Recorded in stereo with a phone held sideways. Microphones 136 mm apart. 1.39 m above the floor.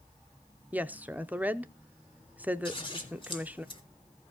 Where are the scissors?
40° left (ahead or behind), 1.6 m.